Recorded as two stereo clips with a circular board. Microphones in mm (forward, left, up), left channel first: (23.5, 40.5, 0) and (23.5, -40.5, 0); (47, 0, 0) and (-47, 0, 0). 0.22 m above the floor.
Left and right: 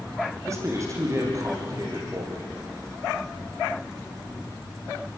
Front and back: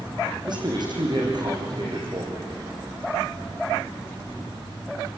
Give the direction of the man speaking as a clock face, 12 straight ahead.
5 o'clock.